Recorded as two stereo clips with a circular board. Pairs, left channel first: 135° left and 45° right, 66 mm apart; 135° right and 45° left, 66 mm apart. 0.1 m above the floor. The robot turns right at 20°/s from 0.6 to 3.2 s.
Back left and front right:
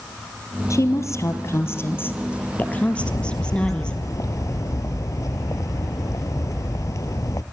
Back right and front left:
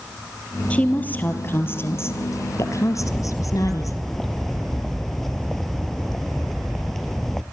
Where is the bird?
135° left, 0.7 m; by 7.4 s 140° left, 0.7 m.